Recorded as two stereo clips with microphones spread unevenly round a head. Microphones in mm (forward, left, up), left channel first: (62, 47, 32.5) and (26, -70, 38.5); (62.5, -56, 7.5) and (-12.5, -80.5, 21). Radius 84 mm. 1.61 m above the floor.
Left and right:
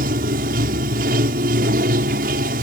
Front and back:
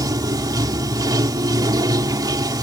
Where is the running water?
130° right.